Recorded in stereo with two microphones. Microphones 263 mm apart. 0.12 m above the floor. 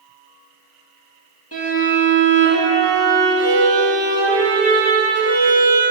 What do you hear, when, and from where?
1.5 s a violin: 65° left (ahead or behind), 3 m